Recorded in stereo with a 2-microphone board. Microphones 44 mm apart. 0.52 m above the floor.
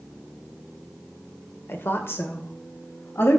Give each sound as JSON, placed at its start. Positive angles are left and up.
{"t": 1.7, "sound": "a woman speaking", "side_deg": 60, "distance_m": 1.5}